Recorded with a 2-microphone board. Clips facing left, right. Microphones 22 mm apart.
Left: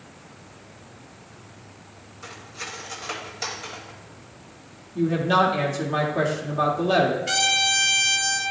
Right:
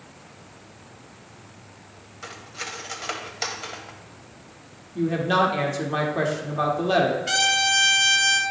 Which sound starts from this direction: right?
Cutlery clinking, at 2.2 s.